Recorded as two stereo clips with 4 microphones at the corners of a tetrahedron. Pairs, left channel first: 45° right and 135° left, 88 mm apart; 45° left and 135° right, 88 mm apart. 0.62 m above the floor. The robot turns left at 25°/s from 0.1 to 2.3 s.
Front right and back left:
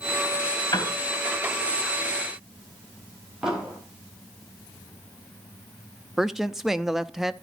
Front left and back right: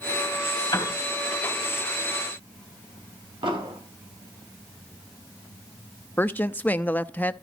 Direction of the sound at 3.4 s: 140° right.